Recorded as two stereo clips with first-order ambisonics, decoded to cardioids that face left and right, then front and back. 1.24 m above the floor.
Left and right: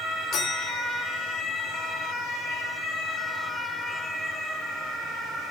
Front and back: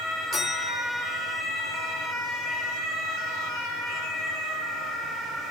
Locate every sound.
0.3 s a bell: 115° left, 0.9 m